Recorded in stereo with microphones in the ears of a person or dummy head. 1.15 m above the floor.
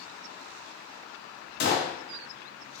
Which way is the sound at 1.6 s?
55° left (ahead or behind).